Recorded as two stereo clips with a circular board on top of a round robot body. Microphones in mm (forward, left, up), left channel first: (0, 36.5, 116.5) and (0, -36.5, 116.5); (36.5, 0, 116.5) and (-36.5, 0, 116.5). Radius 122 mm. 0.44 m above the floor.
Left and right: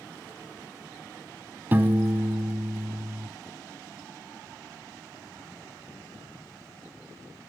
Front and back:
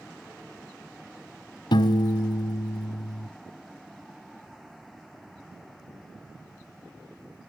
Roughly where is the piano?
Ahead right.